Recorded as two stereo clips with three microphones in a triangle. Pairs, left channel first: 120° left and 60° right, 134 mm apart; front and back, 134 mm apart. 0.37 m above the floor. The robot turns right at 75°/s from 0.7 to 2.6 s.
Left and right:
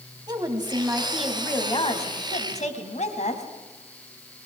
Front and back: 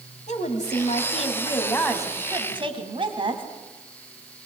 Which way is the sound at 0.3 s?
5° right.